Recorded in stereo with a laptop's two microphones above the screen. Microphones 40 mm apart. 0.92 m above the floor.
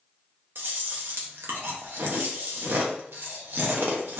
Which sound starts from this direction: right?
Chewing, at 0.6 s.